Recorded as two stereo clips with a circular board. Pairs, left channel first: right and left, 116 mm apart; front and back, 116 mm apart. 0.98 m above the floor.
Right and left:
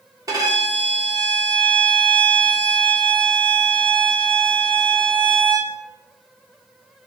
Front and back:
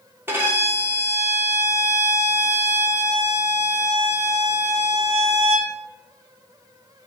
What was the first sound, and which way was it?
A violin, 125° left.